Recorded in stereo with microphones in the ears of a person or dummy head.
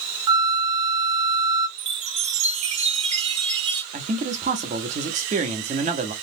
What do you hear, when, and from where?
0.3 s a flute: 15° right (ahead or behind), 0.6 m
1.8 s a chime: 35° right (ahead or behind), 0.9 m
3.9 s a man speaking: 30° right (ahead or behind), 0.9 m